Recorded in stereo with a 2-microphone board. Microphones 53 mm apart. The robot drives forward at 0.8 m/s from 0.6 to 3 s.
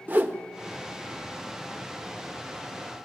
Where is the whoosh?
35° right (ahead or behind), 1.2 m.